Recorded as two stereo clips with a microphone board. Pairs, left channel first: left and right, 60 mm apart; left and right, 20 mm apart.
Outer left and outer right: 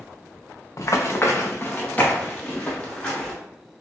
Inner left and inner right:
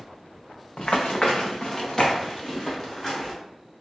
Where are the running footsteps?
60° left (ahead or behind), 0.6 m; by 3.3 s 10° left (ahead or behind), 1.6 m.